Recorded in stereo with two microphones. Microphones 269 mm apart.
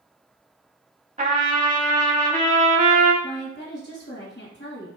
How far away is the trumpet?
About 0.7 m.